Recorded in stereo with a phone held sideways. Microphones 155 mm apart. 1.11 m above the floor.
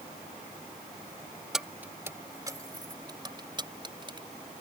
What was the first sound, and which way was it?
Keys jangling, centre (ahead or behind).